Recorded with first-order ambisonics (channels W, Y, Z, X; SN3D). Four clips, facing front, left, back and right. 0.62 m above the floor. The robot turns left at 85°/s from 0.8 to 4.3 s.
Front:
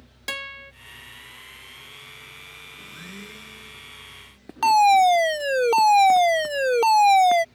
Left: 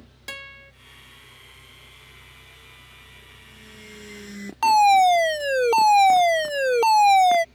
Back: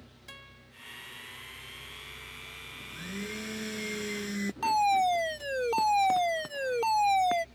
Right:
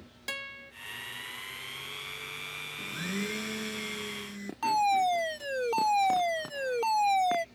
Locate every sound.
0.3 s a guitar: 5° left
2.8 s a blender: 70° right; by 4.5 s 165° left
4.6 s a fire alarm: 45° left